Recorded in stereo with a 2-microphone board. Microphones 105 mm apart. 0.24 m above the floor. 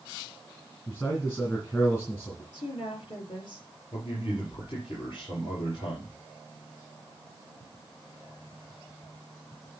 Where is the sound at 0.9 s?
30° left (ahead or behind), 3 m.